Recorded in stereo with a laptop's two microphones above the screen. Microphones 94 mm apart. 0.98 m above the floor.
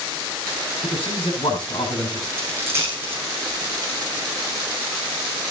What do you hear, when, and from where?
0.8 s a man speaking: 70° left (ahead or behind), 6 m
2.4 s a dropped coin: 30° right (ahead or behind), 4.5 m